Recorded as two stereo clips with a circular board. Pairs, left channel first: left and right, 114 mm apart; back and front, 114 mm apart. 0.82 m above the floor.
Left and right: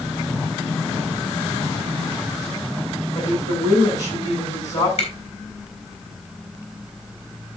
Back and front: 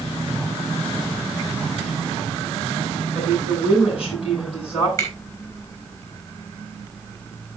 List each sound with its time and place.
3.1 s a woman speaking: 145° left, 8.5 m
5.0 s a finger snap: 120° left, 7 m